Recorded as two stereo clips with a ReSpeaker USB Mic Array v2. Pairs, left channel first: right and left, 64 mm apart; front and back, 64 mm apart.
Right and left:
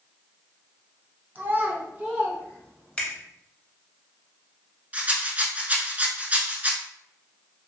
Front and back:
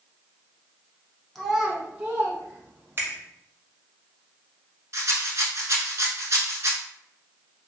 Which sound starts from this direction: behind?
A finger snap, at 3.0 s.